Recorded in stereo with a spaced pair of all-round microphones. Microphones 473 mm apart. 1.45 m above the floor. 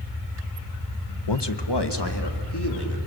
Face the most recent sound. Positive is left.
turn(degrees=60)  # may be behind; listen again after turning